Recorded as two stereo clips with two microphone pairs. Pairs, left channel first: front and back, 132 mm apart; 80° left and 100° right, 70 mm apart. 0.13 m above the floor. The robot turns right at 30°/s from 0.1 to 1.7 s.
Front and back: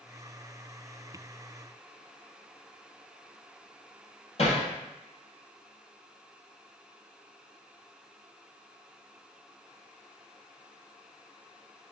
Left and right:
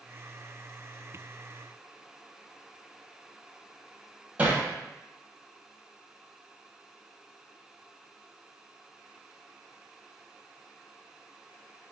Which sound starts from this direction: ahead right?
Hammering, at 4.4 s.